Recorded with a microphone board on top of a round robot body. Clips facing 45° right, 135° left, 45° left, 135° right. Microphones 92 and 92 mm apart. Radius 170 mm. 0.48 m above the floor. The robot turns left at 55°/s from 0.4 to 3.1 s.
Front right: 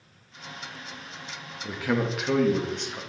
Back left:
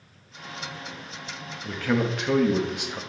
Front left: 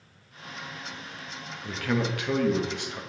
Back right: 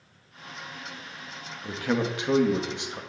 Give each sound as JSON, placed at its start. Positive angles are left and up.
{"t": 1.6, "sound": "a man speaking", "azimuth_deg": -100, "distance_m": 0.7}